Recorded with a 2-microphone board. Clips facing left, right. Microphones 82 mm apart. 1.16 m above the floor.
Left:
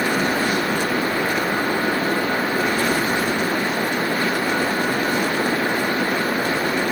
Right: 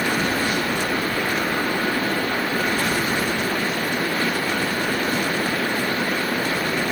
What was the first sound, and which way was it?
Only background noise.